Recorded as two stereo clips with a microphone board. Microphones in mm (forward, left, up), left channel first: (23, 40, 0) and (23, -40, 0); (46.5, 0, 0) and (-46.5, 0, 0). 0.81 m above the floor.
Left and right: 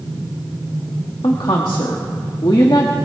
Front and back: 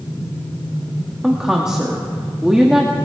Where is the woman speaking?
100° left, 1.2 m.